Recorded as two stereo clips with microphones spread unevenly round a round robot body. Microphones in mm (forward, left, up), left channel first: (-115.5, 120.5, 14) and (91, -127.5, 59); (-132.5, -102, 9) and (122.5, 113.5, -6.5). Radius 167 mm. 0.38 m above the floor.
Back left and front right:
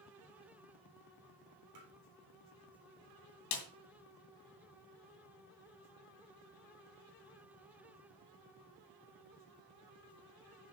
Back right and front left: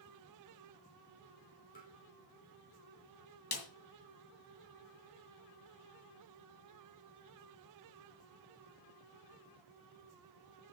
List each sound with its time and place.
1.8 s tapping: 75° right, 2.5 m
3.5 s a snare drum: 160° left, 2 m